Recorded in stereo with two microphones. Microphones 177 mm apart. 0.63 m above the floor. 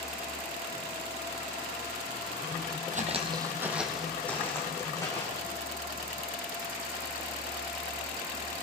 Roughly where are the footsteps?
Right.